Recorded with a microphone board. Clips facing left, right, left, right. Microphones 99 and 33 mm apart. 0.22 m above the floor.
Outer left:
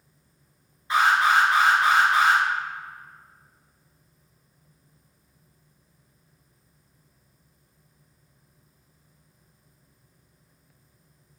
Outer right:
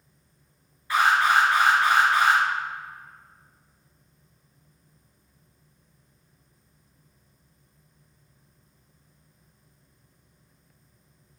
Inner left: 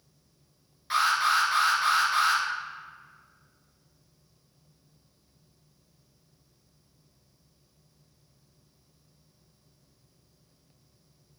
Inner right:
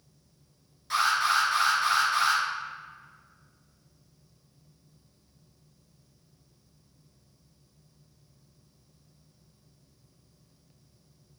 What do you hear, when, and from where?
0.9 s an alarm: 25° left (ahead or behind), 2.5 m